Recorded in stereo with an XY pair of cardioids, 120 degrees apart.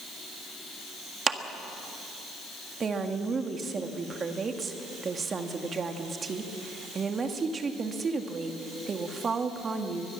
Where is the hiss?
No hiss in this recording.